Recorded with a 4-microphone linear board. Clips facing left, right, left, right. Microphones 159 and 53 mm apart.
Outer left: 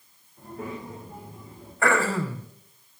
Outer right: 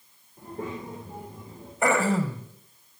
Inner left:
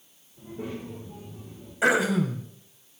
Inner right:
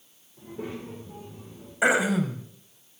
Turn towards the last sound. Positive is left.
turn(degrees=-20)  # may be behind; listen again after turning